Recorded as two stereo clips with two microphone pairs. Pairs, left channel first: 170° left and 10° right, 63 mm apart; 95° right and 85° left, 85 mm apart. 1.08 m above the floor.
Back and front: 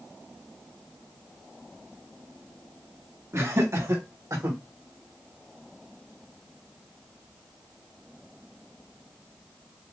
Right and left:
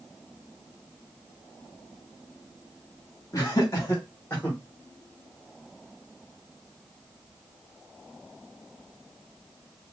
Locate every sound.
3.3 s laughter: 45° right, 2.5 m; by 4.6 s 30° right, 2 m